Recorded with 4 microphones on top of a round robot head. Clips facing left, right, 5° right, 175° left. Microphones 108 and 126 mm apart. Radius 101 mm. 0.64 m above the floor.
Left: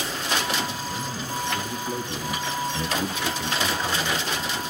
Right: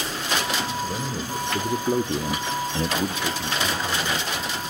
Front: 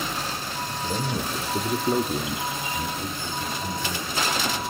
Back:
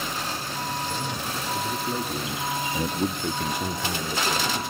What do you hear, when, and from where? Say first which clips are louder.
0.8 s a man speaking: right 2 dB, front 3 dB; 40° right, 2.5 m; by 4.6 s 165° left, 2.5 m